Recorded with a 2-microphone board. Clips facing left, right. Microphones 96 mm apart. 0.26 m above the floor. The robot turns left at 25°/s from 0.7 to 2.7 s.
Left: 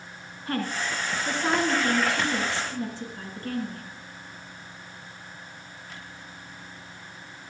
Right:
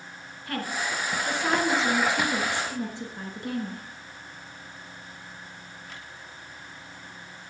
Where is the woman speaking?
30° left, 2.5 m; by 3.8 s 20° right, 2.5 m.